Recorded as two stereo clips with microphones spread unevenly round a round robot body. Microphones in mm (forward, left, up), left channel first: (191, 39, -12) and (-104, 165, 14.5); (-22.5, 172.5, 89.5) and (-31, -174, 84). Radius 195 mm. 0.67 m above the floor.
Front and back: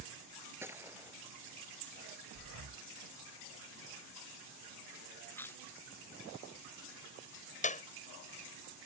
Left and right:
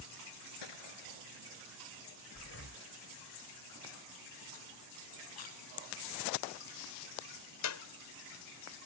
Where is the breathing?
140° left.